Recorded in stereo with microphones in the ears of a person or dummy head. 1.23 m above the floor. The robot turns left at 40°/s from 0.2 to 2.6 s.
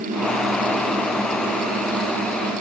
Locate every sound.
Only background noise.